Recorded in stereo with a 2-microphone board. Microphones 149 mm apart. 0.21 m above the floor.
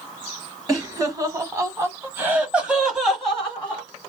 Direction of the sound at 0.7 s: 25° right (ahead or behind).